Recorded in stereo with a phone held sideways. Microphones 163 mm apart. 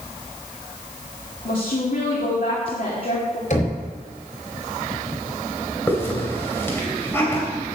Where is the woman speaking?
65° left (ahead or behind), 2.5 m.